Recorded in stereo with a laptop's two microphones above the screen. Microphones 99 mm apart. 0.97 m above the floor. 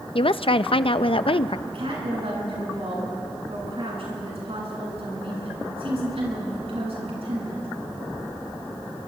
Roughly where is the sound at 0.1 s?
Left.